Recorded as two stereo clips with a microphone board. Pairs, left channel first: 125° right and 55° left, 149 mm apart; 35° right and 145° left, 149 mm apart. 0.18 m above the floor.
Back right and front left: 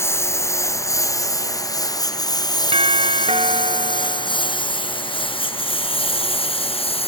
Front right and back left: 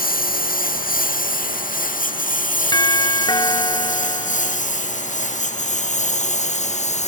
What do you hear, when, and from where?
0.0 s a lawn mower: 50° right; by 7.1 s 75° right
2.7 s a doorbell: 20° left